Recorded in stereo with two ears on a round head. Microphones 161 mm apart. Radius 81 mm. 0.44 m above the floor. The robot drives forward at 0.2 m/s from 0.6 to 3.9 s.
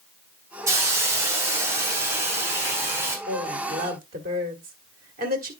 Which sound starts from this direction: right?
A woman speaking, at 3.3 s.